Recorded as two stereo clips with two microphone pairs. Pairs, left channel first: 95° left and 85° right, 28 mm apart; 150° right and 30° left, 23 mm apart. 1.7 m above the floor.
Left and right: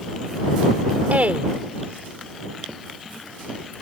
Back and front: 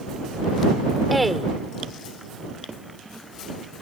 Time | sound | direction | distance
1.1 | a woman speaking | 60° right | ?